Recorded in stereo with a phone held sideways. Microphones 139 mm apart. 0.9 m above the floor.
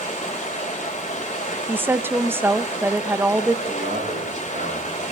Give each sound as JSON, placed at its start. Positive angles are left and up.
{"t": 0.0, "sound": "running water", "side_deg": 60, "distance_m": 2.0}
{"t": 1.7, "sound": "a woman speaking", "side_deg": -15, "distance_m": 0.6}
{"t": 3.6, "sound": "a man speaking", "side_deg": -70, "distance_m": 8.0}